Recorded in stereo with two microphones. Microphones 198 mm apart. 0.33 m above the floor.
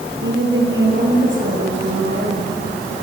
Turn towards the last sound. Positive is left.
turn(degrees=-70)  # may be behind; listen again after turning